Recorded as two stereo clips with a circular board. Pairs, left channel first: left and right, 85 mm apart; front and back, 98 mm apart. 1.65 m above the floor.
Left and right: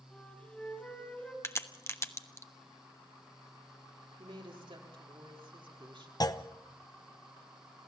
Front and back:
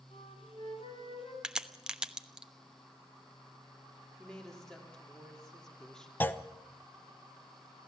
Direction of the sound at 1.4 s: 105° left.